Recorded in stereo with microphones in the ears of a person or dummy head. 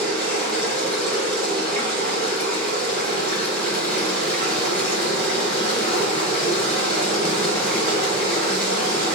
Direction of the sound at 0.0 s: 50° right (ahead or behind).